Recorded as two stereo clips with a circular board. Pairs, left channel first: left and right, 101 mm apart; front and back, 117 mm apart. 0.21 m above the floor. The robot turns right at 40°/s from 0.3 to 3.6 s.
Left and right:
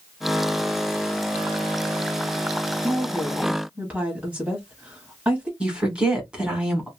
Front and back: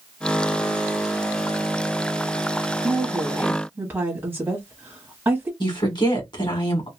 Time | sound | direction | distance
2.8 | a woman speaking | 170° right | 1.1 m
5.6 | a woman speaking | 15° right | 1.7 m